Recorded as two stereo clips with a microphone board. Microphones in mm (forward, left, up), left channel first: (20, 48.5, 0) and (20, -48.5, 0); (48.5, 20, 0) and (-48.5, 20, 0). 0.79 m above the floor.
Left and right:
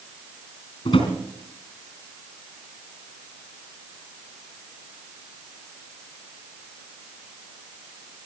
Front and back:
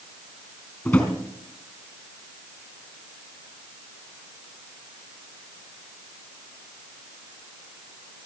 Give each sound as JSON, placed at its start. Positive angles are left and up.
{"t": 0.8, "sound": "a drawer", "azimuth_deg": 75, "distance_m": 4.0}